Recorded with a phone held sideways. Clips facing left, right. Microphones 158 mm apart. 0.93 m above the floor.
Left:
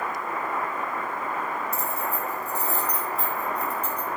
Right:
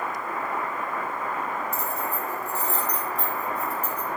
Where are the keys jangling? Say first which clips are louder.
Even; 35° left (ahead or behind), 2.5 m; by 4.1 s 10° right (ahead or behind), 3.5 m.